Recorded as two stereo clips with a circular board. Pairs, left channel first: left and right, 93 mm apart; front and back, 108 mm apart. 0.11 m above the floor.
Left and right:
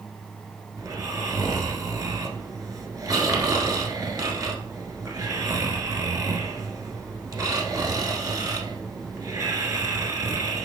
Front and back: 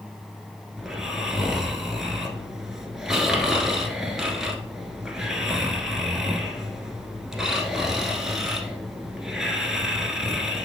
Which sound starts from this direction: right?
Snoring, at 0.8 s.